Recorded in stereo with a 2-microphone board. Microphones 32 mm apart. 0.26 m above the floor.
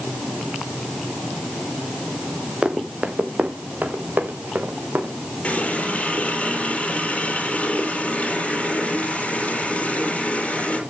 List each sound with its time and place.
2.6 s running footsteps: 30° right (ahead or behind), 2.5 m; by 5.1 s 70° right (ahead or behind), 4 m
5.4 s a running tap: 40° left (ahead or behind), 4 m